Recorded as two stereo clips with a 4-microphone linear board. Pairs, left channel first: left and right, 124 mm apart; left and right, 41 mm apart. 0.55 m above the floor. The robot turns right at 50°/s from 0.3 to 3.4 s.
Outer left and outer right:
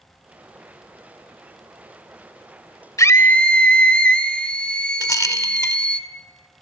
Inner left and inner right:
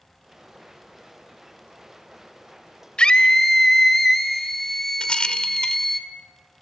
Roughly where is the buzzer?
No buzzer in this recording.